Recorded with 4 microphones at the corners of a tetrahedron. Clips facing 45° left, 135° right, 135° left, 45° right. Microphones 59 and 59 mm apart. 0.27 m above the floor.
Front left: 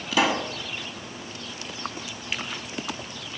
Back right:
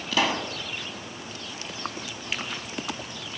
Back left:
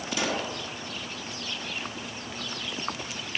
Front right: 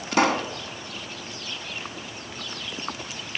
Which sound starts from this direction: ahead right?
A pop, at 0.1 s.